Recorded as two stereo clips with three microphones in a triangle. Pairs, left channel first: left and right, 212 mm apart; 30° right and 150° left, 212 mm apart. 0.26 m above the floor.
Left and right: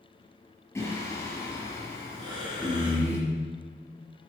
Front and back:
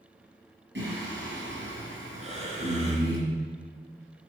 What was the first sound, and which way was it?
Singing, 165° left.